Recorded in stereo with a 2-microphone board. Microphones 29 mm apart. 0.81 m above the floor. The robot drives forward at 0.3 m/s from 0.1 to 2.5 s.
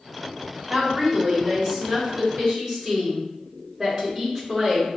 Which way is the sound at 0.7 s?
20° right (ahead or behind).